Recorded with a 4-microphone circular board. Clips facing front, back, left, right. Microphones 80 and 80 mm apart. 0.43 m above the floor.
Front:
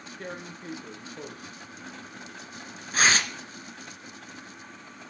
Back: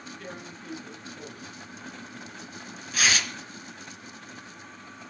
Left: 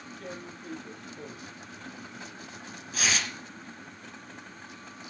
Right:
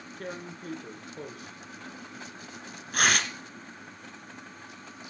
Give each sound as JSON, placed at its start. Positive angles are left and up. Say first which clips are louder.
{"t": 0.2, "sound": "tearing paper", "louder": "front 6 dB, right 4 dB", "azimuth_deg": -55, "distance_m": 2.5}